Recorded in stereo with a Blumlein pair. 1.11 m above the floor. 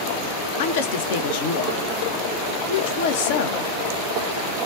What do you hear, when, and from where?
0.6 s a woman speaking: 55° left, 0.7 m